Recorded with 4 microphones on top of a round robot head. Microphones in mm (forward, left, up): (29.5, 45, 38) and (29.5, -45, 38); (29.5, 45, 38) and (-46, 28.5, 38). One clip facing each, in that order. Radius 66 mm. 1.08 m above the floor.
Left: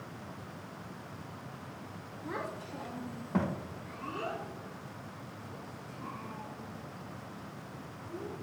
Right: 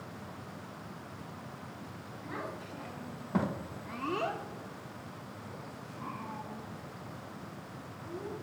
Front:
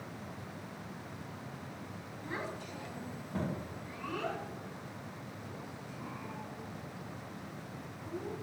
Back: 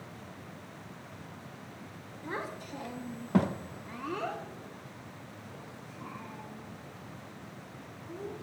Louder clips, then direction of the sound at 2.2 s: Left 2 dB, back 3 dB; 145° left.